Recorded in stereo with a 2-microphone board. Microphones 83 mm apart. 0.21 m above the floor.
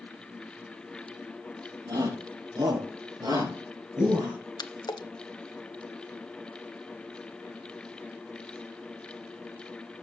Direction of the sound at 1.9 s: 50° right (ahead or behind).